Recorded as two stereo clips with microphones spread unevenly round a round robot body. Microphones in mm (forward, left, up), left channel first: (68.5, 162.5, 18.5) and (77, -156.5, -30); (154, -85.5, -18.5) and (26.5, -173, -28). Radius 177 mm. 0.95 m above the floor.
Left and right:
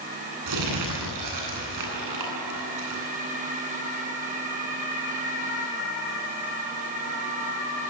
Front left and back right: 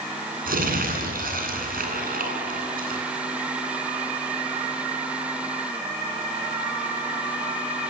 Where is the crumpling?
125° right, 10 m.